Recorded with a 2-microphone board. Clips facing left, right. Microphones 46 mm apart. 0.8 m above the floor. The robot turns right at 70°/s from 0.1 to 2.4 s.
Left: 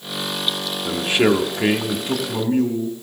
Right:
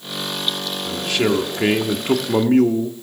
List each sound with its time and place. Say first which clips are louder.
0.8 s a man speaking: left 3 dB; 135° left, 1.3 m; by 2.9 s 115° right, 1.3 m